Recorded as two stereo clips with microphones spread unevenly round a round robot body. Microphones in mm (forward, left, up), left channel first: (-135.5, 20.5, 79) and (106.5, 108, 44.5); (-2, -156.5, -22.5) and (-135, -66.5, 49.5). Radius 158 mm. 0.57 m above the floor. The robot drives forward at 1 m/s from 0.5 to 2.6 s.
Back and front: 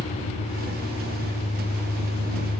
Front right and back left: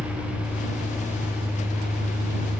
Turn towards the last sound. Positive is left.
turn(degrees=115)